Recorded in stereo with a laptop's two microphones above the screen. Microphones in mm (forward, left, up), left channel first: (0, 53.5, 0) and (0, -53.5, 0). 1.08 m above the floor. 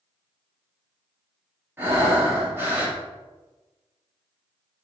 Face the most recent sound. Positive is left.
turn(degrees=-20)  # may be behind; listen again after turning